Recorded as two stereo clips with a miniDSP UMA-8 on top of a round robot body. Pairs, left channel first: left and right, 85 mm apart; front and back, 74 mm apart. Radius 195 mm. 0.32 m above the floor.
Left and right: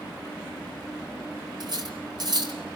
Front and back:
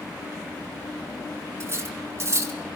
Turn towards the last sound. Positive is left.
turn(degrees=-125)